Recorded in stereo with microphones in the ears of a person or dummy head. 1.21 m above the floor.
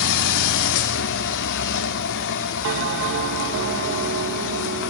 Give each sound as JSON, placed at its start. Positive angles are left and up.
{"t": 0.0, "sound": "a machine running", "side_deg": 60, "distance_m": 1.7}
{"t": 2.6, "sound": "a bell", "side_deg": -70, "distance_m": 1.0}